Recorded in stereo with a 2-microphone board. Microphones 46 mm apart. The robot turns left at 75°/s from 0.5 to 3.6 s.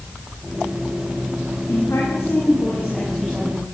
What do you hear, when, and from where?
1.7 s a woman speaking: 110° left, 8.5 m; by 3.6 s 35° right, 8.5 m